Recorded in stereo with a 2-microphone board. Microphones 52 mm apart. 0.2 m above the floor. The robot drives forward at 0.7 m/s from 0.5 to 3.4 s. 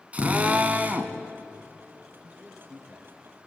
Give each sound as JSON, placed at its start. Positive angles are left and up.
{"t": 0.1, "sound": "a drill", "side_deg": -30, "distance_m": 1.4}
{"t": 2.2, "sound": "a man speaking", "side_deg": -15, "distance_m": 3.5}